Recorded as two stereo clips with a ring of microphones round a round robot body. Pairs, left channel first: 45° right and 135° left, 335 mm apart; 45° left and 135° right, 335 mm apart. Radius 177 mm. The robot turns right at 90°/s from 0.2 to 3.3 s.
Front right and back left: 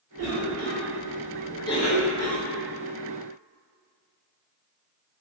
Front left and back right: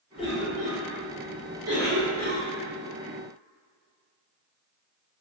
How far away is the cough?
About 1.9 m.